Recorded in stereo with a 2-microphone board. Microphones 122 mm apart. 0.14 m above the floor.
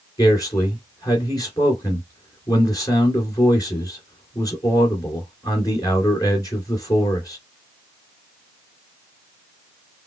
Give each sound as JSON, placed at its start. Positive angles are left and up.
{"t": 0.2, "sound": "a man speaking", "side_deg": 30, "distance_m": 2.0}